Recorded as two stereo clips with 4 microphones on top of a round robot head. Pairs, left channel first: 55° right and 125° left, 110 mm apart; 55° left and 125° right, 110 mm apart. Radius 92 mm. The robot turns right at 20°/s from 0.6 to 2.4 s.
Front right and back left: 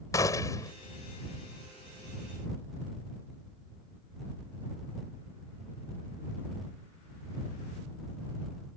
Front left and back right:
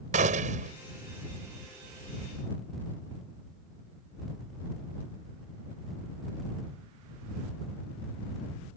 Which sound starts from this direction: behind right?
A gunshot, at 0.1 s.